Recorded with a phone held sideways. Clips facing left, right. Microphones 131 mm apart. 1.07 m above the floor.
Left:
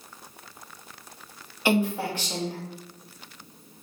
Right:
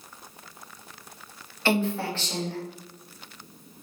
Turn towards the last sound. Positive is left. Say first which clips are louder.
# left 1 dB
turn(degrees=10)  # may be behind; listen again after turning